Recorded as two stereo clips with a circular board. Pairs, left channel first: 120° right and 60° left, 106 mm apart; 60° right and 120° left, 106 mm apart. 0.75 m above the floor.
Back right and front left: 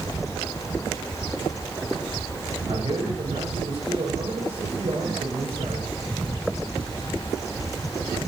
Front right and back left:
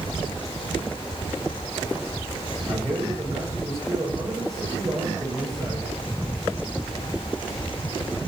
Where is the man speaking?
55° left, 9.5 m.